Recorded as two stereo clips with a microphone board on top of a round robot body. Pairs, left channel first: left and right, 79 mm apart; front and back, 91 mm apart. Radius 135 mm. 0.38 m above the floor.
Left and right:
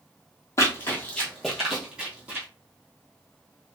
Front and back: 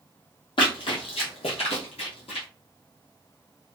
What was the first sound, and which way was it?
Running footsteps, 35° left.